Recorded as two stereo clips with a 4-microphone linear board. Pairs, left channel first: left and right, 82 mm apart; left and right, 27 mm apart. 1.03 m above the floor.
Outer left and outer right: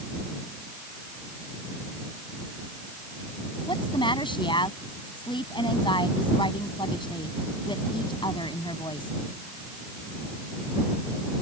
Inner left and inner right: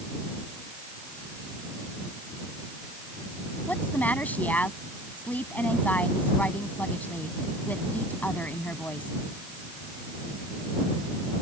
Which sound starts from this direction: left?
A woman speaking, at 3.7 s.